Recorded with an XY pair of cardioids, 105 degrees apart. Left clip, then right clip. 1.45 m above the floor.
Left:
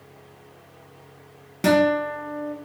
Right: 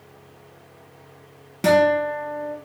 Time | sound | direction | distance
1.6 | a guitar | straight ahead | 1.1 m